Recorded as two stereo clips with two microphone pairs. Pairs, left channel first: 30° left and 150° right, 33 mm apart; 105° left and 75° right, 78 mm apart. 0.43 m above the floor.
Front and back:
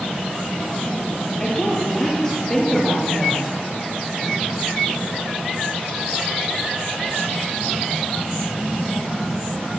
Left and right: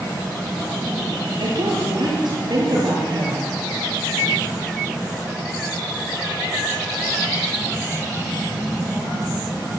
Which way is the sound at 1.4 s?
45° right.